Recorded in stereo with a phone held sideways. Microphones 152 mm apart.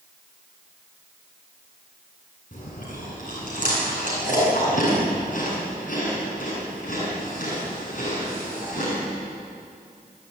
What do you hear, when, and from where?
2.5 s chewing: 55° left (ahead or behind), 9.5 m